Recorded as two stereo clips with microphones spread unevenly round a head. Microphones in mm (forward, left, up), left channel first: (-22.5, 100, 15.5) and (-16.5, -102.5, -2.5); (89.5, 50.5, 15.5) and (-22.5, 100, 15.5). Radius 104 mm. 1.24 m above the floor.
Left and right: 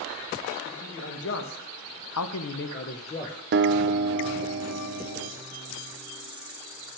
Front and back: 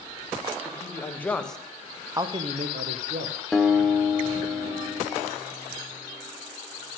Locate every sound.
0.7 s a man speaking: 45° left, 1.8 m; by 3.4 s 165° left, 1.1 m
3.5 s a guitar: 115° right, 0.8 m